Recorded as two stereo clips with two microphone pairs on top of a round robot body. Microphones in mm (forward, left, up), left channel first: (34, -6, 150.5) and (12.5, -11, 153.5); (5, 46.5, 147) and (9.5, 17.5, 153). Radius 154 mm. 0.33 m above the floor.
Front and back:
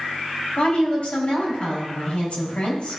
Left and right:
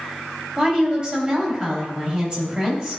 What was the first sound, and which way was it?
A woman speaking, 20° right.